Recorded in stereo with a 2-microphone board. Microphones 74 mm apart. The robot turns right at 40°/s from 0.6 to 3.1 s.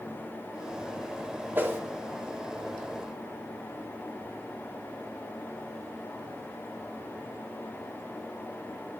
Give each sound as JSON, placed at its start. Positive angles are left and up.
{"t": 1.6, "sound": "a whoosh", "side_deg": -25, "distance_m": 1.1}